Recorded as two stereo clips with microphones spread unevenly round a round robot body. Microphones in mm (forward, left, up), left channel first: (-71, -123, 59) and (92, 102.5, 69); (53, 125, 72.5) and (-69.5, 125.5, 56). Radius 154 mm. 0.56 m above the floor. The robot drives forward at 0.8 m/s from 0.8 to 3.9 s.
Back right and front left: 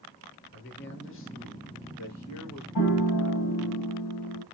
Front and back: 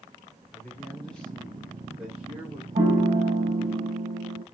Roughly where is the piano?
Behind right.